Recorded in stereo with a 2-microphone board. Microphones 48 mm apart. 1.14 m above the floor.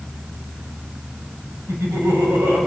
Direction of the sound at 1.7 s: 70° right (ahead or behind).